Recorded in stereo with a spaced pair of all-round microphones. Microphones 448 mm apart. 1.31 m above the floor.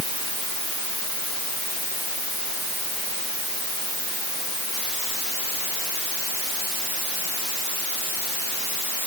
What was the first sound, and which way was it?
Only background noise.